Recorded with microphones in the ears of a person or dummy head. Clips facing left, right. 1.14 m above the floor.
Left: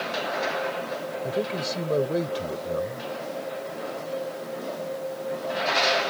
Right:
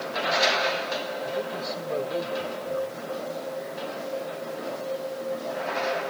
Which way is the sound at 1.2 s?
35° left (ahead or behind).